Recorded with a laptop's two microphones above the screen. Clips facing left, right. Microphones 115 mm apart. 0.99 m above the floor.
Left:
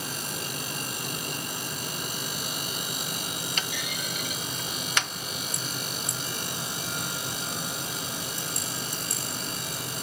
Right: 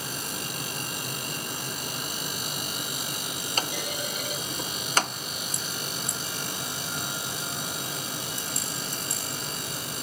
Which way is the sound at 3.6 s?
40° right (ahead or behind).